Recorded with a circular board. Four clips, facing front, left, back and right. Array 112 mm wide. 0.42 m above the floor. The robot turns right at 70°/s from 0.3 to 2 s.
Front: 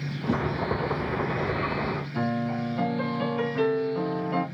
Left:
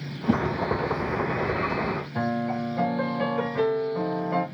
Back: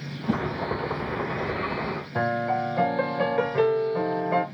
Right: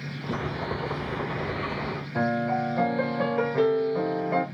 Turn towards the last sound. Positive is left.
turn(degrees=-165)